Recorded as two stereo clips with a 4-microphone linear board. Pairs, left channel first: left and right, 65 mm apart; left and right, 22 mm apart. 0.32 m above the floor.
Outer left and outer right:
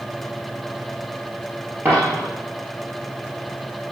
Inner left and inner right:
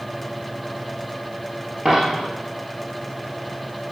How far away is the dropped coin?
About 3 m.